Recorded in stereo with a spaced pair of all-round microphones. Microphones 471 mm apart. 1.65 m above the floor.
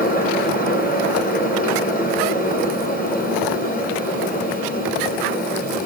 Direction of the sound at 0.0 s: 20° left (ahead or behind).